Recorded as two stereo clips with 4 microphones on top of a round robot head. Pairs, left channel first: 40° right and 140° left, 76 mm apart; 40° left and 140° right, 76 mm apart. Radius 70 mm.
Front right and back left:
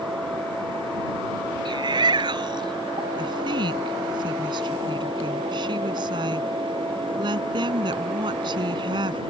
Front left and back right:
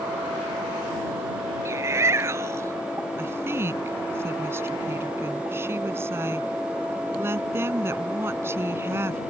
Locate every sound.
1.6 s a shout: 165° left
3.2 s a woman speaking: 165° left